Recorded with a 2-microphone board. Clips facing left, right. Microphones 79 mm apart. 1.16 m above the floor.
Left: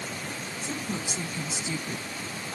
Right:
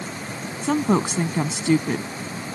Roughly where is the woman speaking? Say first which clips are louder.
Right 15 dB; right.